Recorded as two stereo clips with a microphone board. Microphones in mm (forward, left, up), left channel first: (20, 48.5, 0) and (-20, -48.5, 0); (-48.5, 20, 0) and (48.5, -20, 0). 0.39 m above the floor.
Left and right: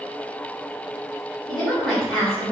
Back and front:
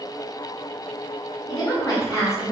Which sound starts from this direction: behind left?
A woman speaking, at 1.5 s.